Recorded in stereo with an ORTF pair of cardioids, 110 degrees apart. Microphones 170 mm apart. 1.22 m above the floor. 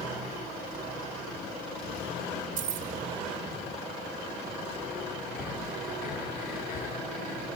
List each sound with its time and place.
2.6 s keys jangling: 50° right, 3.5 m
5.3 s breathing: 60° left, 6 m